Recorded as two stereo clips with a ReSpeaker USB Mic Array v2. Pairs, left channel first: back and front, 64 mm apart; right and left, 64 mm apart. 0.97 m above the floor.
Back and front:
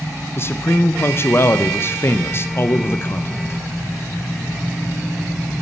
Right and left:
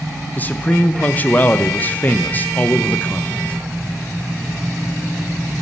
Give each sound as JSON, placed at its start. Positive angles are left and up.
{"t": 0.4, "sound": "a man speaking", "azimuth_deg": -145, "distance_m": 0.5}